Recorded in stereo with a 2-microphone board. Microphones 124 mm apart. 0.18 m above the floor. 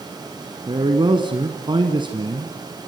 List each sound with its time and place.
0.7 s a man speaking: 40° right (ahead or behind), 1.6 m